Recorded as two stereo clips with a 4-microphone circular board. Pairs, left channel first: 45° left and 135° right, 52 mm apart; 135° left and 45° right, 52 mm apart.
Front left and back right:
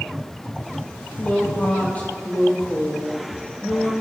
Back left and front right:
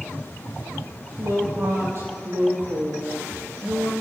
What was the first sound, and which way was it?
A woman speaking, 15° right.